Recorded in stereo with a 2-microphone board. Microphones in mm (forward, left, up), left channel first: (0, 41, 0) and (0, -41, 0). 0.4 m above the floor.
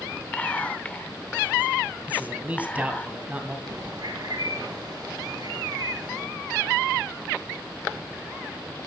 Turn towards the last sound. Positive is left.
turn(degrees=-60)  # may be behind; listen again after turning